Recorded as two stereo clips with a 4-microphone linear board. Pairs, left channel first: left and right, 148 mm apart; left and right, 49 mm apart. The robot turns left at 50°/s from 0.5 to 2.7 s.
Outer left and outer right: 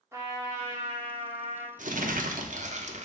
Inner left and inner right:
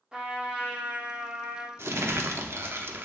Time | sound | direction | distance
0.1 | a trumpet | 30° right | 1.2 m
1.8 | crumpling | 70° right | 0.5 m